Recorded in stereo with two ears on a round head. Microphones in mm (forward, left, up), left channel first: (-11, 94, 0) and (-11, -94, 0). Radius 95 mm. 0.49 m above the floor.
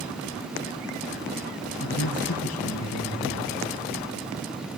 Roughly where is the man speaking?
Left.